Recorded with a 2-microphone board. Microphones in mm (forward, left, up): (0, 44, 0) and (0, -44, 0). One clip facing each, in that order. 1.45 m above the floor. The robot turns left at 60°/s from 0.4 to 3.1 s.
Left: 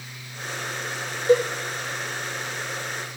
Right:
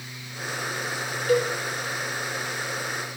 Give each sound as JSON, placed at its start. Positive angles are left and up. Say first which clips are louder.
{"t": 1.3, "sound": "a cowbell", "louder": "left 4 dB", "side_deg": 25, "distance_m": 0.7}